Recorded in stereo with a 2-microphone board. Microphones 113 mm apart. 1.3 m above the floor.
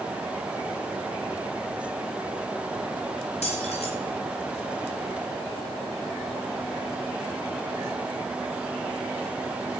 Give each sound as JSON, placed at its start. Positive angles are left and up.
{"t": 3.4, "sound": "keys jangling", "side_deg": 75, "distance_m": 5.5}